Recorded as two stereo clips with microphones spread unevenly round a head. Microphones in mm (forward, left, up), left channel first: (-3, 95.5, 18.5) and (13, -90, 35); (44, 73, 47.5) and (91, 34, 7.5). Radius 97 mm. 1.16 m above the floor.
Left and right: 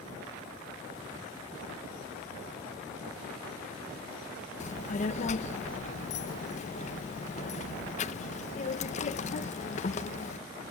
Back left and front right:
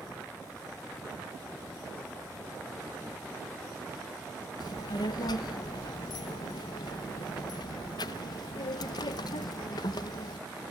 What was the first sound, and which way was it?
A child speaking, 150° left.